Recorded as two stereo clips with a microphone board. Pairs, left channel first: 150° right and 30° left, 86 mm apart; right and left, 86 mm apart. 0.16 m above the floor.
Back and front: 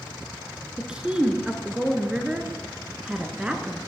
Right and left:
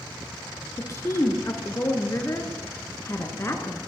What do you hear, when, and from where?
0.8 s a woman speaking: 45° right, 1.8 m